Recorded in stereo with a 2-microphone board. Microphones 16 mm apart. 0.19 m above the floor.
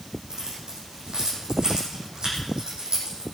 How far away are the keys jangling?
About 7 m.